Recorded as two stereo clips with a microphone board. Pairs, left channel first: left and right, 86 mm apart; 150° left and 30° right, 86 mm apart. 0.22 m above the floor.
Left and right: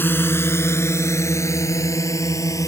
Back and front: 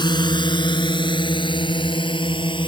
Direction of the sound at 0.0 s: 150° left.